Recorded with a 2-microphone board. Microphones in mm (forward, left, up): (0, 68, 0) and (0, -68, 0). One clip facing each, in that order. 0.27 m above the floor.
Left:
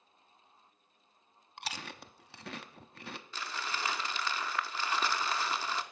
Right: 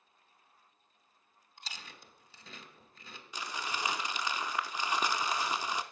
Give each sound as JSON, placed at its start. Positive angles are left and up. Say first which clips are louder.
{"t": 1.6, "sound": "chewing", "louder": "left 8 dB", "side_deg": 70, "distance_m": 0.6}
{"t": 3.3, "sound": "crumpling", "louder": "right 2 dB", "side_deg": -15, "distance_m": 0.5}